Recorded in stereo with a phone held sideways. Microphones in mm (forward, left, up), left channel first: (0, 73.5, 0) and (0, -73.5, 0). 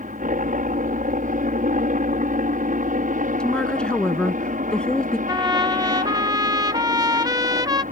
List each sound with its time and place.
0.0 s a helicopter: 65° right (ahead or behind)
3.4 s a woman speaking: 5° left (ahead or behind)
5.3 s a trumpet: 25° right (ahead or behind)